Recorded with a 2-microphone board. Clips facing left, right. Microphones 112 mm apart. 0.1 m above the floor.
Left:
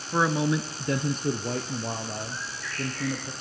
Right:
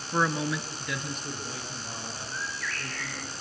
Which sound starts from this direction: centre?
A man speaking, at 0.1 s.